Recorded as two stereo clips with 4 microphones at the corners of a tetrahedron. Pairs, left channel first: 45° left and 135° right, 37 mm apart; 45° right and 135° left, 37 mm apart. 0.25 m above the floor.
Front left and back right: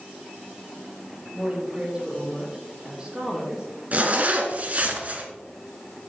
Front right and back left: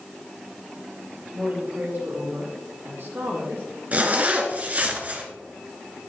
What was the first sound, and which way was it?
A woman speaking, 170° left.